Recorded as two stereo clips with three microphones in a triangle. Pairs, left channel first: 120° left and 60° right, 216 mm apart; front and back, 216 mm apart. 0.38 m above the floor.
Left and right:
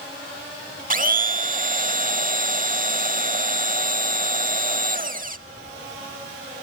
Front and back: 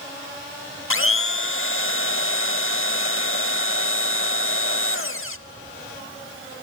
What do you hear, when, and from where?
0.9 s a blender: 15° right, 0.7 m